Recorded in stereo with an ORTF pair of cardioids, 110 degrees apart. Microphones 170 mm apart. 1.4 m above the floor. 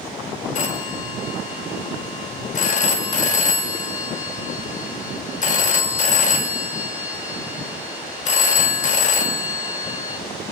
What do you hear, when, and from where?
0.6 s a phone ringing: 50° left, 1.8 m